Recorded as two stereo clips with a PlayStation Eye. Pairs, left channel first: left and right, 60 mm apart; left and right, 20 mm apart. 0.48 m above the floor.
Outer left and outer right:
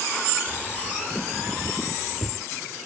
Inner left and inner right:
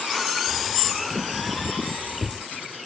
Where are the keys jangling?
Centre (ahead or behind), 1.0 m.